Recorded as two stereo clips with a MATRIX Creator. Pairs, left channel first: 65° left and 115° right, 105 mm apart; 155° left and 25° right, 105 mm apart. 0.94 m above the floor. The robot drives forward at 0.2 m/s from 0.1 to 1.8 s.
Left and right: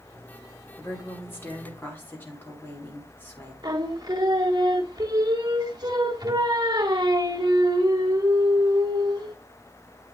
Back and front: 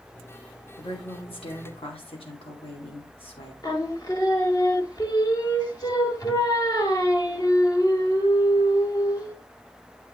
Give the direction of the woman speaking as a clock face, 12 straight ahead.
7 o'clock.